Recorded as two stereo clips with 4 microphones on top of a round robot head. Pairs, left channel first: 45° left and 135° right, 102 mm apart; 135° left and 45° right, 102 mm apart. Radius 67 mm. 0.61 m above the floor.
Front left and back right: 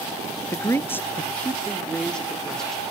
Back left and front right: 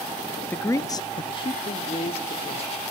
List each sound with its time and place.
0.5 s a man speaking: 75° left, 0.6 m; by 2.8 s 130° left, 1.5 m